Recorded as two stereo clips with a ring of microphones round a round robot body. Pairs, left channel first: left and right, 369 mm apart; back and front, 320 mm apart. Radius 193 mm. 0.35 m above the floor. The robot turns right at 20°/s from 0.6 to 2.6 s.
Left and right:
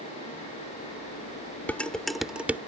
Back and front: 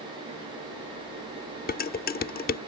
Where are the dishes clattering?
170° left; by 2.6 s 170° right.